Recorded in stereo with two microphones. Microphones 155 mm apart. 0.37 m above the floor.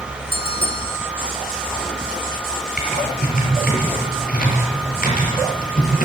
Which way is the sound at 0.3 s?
35° left (ahead or behind).